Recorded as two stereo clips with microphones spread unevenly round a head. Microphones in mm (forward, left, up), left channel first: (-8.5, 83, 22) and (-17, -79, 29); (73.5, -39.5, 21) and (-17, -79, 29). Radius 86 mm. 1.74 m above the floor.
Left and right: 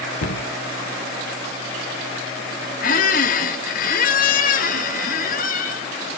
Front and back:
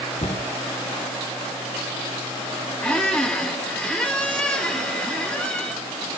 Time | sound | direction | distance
0.2 | a cupboard door | 80° left | 1.5 m
2.8 | a squeak | 110° left | 1.5 m